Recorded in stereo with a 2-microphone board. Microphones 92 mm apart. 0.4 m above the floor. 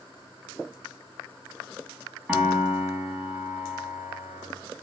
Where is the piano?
15° right (ahead or behind), 3.5 m.